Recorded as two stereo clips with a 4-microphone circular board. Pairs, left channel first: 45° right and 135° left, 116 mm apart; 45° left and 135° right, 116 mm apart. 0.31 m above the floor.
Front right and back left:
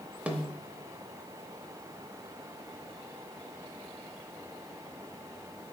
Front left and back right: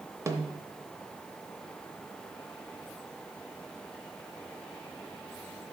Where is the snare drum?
160° right, 0.7 m.